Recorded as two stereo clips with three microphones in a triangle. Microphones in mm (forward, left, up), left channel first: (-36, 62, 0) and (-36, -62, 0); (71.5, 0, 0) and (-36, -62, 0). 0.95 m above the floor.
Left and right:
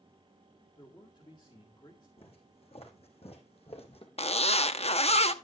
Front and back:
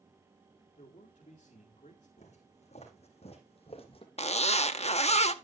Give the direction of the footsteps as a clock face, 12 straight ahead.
10 o'clock.